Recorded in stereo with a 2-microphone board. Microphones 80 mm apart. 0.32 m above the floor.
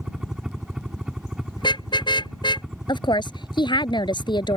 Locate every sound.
0.0 s a helicopter: 10° right (ahead or behind)
1.6 s a car horn: 80° left
2.9 s a woman speaking: 80° left